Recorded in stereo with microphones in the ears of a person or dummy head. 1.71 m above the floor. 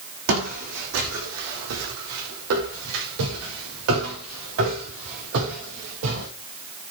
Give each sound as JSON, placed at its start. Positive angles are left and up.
{"t": 0.3, "sound": "footsteps", "side_deg": -65, "distance_m": 4.5}